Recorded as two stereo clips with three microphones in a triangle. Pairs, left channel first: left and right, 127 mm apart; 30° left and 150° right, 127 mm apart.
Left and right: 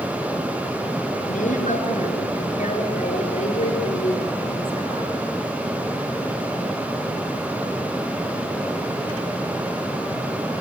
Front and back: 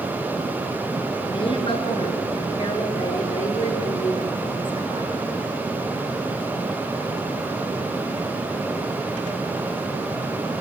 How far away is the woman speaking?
About 9 m.